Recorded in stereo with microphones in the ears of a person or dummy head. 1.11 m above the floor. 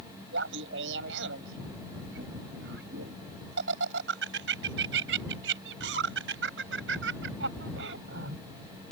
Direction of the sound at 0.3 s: 70° right (ahead or behind).